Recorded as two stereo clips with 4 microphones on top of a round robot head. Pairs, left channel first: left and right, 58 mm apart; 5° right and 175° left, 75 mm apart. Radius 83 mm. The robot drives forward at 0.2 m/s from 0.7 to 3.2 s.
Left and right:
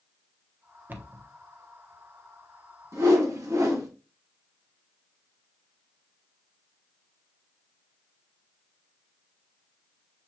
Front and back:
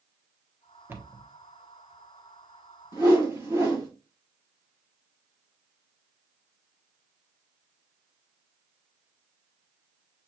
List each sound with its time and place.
0.9 s a cupboard door: 135° right, 1.1 m
2.9 s a whoosh: 120° right, 2 m